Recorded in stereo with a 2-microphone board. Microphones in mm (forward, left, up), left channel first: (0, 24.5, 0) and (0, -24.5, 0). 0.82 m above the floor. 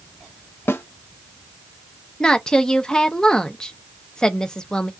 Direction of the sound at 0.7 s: 60° left (ahead or behind).